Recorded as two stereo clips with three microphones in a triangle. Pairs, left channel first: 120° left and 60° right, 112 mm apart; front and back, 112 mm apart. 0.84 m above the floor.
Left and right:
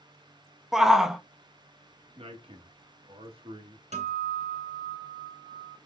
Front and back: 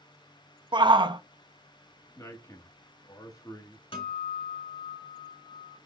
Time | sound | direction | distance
0.7 | a shout | 145° right | 0.6 m
2.1 | a man speaking | 55° right | 1.2 m
3.9 | a guitar | 40° right | 2.5 m